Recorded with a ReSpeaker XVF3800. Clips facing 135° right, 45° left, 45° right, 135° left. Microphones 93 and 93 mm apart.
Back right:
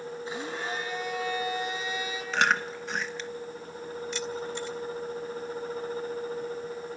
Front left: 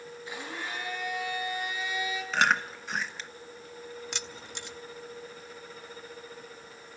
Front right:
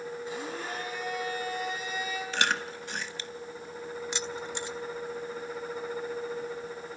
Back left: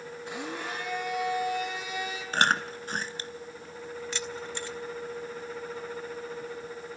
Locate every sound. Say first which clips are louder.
0.3 s a blender: back right 3 dB, back left 4 dB; 160° left, 6 m
2.3 s chewing: back right 1 dB, back left 6 dB; 135° left, 0.9 m
4.1 s keys jangling: back right 9 dB, front right 1 dB; 25° left, 1.1 m